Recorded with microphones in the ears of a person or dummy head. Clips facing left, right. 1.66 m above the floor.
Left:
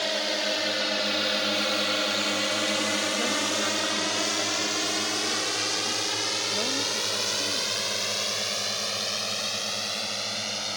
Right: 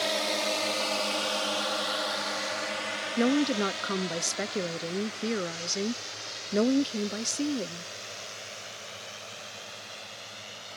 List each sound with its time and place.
0.0 s a drone: centre (ahead or behind); by 10.8 s 75° left (ahead or behind)
3.2 s a woman speaking: 50° right (ahead or behind)